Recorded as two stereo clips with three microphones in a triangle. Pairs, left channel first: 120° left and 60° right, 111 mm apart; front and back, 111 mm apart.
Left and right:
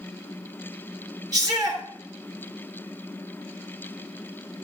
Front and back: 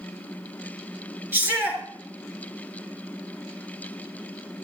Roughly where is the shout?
Right.